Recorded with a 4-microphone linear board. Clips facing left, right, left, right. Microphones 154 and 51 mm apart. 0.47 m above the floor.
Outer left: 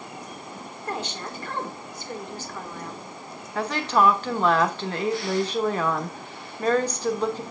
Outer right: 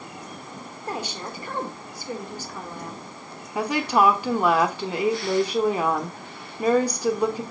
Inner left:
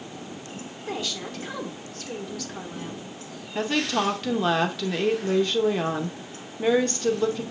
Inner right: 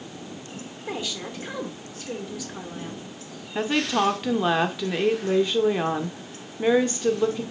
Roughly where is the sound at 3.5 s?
Centre.